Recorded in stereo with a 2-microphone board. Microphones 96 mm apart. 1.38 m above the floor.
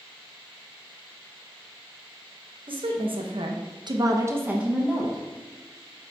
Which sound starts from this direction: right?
A woman speaking, at 2.7 s.